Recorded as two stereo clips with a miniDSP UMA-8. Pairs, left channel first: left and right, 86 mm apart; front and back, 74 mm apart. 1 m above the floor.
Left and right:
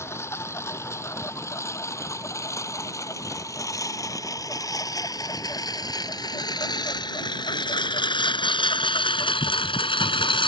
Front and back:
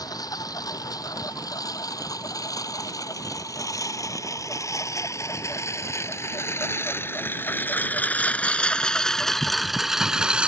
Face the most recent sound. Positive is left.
turn(degrees=105)